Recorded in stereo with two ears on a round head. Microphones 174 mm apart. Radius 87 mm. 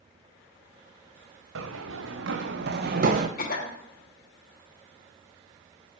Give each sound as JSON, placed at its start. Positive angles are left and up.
{"t": 1.6, "sound": "running footsteps", "side_deg": -75, "distance_m": 1.9}
{"t": 3.4, "sound": "a cough", "side_deg": 45, "distance_m": 1.6}